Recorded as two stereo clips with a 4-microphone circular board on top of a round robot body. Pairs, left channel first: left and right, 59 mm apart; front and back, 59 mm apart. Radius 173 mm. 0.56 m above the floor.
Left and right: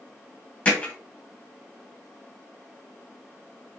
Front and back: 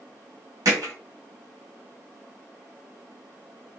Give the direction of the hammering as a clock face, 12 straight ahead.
7 o'clock.